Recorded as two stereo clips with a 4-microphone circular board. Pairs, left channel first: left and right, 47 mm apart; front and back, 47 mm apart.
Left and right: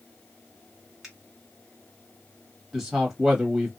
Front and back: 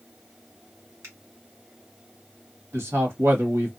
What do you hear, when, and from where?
1.0 s a finger snap: 175° right, 1.8 m
2.7 s a man speaking: 170° right, 1.4 m